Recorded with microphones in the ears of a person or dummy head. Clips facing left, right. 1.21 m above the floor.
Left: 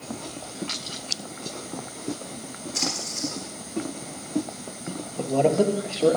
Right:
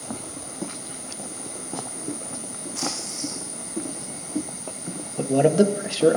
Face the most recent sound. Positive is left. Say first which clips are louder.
# right 3 dB
turn(degrees=-10)  # may be behind; listen again after turning